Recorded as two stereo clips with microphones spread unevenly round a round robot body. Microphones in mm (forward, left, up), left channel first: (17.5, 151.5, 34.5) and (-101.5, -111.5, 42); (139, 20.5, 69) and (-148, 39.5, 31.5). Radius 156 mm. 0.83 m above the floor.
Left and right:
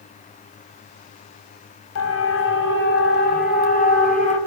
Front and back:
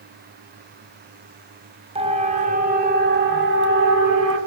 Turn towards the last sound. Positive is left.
turn(degrees=130)